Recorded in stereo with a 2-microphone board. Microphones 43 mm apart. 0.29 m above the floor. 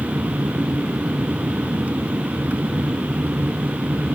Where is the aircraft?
40° right (ahead or behind).